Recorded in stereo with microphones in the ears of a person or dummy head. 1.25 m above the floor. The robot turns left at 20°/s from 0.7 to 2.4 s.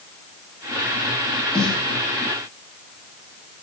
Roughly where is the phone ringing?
I don't hear a phone ringing.